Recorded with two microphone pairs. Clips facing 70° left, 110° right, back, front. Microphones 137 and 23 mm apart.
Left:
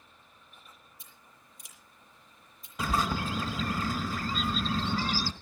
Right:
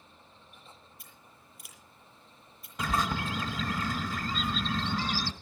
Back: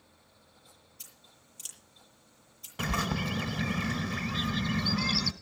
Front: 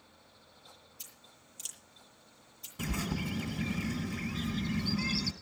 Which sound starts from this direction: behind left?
A bird, at 2.8 s.